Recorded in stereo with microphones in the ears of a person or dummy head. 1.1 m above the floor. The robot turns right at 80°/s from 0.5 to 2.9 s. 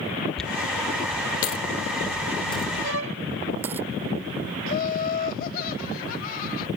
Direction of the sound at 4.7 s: 55° left (ahead or behind).